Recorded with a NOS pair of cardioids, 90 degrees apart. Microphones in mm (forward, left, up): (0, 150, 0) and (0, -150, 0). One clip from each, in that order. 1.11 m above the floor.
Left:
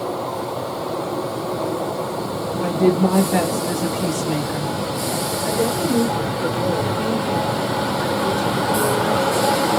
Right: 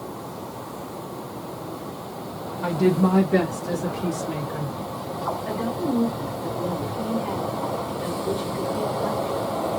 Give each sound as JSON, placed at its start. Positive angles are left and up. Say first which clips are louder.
{"t": 2.6, "sound": "a woman speaking", "louder": "left 3 dB", "azimuth_deg": -5, "distance_m": 1.7}
{"t": 5.5, "sound": "a woman speaking", "louder": "left 6 dB", "azimuth_deg": 65, "distance_m": 2.0}